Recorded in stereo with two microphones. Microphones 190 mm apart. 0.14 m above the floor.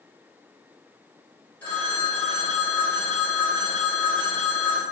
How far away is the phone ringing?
About 1.3 m.